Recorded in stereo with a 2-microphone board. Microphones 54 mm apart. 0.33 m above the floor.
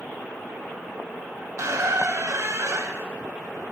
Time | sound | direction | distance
1.6 | a squeak | 65° right (ahead or behind) | 0.8 m